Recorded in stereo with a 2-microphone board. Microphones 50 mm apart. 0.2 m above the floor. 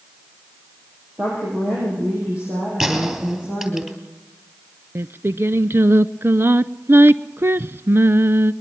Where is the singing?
55° right (ahead or behind), 0.5 m.